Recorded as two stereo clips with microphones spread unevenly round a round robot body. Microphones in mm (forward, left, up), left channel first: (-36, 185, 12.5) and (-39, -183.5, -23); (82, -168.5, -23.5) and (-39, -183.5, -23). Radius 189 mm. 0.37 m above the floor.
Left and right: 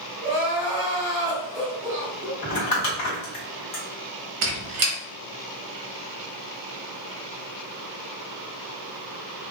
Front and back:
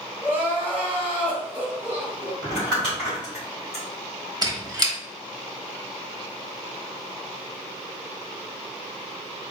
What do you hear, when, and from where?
0.2 s crying: 100° right, 2.0 m
2.4 s crumpling: 80° left, 1.3 m
4.4 s a squeak: 115° right, 1.0 m